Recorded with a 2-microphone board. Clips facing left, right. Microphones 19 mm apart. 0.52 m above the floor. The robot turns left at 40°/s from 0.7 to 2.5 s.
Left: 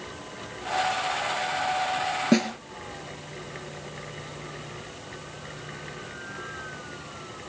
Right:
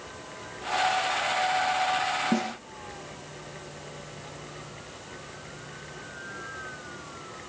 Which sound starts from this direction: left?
A snare drum, at 2.3 s.